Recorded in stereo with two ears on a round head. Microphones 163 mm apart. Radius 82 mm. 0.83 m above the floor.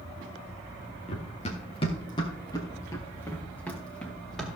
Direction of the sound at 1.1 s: 40° left (ahead or behind).